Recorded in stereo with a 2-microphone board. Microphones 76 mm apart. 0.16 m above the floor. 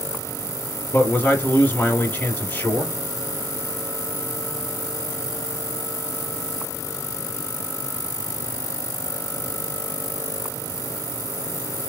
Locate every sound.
0.9 s a man speaking: 25° left (ahead or behind), 1.8 m